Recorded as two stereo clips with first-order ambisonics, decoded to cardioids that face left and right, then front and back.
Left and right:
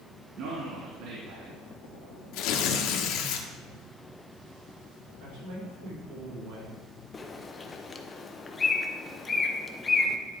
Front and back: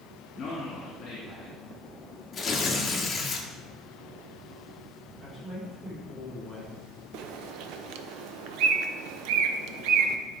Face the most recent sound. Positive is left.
turn(degrees=165)